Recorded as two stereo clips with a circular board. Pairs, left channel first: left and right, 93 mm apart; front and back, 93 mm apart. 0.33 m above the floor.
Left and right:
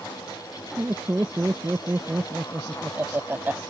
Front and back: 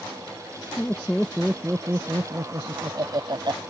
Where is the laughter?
40° right; by 3.6 s 155° right.